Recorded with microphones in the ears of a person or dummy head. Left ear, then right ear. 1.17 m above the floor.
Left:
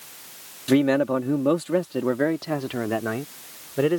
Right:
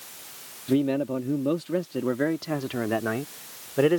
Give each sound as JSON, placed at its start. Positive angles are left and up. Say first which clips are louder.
{"t": 0.7, "sound": "a man speaking", "louder": "left 5 dB", "side_deg": 60}